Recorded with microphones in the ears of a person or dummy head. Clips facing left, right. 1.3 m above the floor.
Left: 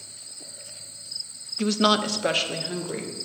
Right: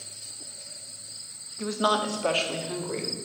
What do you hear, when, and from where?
1.6 s a woman speaking: 40° left (ahead or behind), 0.5 m; by 3.1 s centre (ahead or behind), 1.0 m